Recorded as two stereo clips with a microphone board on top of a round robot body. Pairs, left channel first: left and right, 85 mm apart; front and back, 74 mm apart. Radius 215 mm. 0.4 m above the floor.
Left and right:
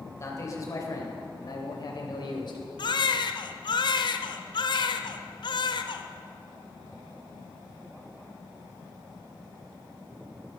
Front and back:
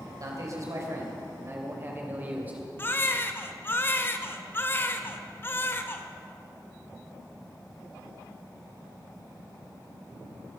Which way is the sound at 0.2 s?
145° left.